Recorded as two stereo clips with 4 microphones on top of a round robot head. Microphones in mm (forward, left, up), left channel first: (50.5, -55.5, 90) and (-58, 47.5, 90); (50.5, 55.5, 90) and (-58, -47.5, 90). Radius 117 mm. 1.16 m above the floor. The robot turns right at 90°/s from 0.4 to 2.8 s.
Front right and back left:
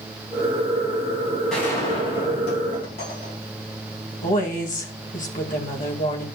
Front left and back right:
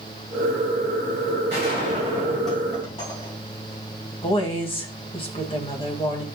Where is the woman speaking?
10° right, 1.8 m.